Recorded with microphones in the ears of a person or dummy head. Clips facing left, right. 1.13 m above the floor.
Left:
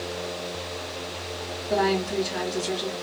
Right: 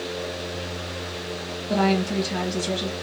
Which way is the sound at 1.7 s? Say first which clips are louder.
Right 2 dB; 45° right (ahead or behind).